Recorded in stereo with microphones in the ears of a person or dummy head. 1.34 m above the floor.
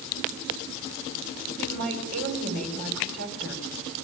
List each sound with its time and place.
1.6 s a woman speaking: 55° right (ahead or behind), 7 m